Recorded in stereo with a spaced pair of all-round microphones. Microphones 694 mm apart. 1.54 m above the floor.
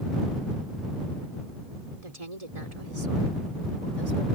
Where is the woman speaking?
60° right (ahead or behind); by 4.2 s 75° right (ahead or behind).